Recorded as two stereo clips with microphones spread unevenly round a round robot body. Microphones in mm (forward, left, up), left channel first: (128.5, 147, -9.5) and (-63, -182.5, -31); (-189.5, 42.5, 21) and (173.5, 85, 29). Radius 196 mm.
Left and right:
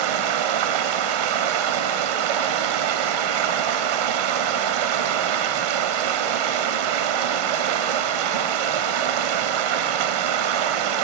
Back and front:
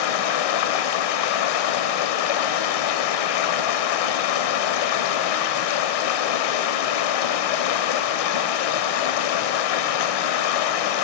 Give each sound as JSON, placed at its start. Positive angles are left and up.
{"t": 0.0, "sound": "running water", "azimuth_deg": -150, "distance_m": 0.8}